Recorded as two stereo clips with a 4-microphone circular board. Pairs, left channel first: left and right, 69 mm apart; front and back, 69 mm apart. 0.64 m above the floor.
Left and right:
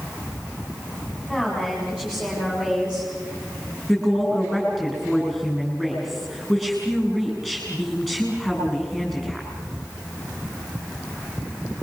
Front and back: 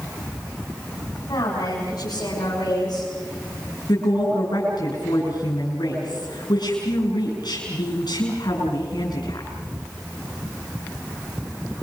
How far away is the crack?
I don't hear a crack.